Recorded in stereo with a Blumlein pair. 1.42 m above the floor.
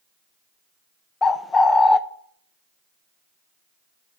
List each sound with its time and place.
1.2 s a bird: 15° left, 0.7 m